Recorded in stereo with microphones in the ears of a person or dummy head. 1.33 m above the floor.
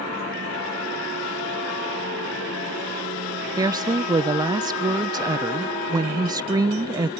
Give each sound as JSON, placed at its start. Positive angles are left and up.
{"t": 3.6, "sound": "a woman speaking", "side_deg": -15}